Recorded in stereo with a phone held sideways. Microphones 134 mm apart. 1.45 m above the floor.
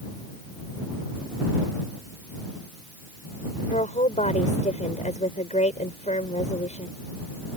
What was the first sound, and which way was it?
A woman speaking, 60° left (ahead or behind).